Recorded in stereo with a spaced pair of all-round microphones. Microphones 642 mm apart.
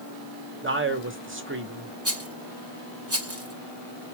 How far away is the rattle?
About 1.1 m.